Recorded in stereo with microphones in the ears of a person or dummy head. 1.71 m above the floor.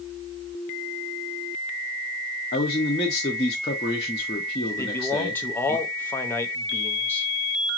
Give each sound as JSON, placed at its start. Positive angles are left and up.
{"t": 2.5, "sound": "a man speaking", "side_deg": 20, "distance_m": 0.6}
{"t": 4.8, "sound": "a man speaking", "side_deg": 15, "distance_m": 0.8}